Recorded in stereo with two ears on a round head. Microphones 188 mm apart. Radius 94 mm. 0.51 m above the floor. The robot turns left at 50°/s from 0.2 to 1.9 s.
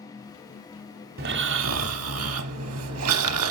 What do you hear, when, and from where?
1.2 s snoring: 45° right, 0.9 m; by 3.5 s 85° right, 0.9 m